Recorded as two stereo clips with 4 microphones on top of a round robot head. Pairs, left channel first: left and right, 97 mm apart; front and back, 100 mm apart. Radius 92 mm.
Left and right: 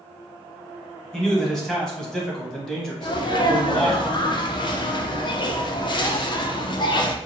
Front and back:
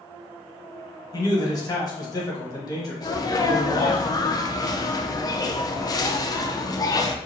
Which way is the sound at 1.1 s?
10° left.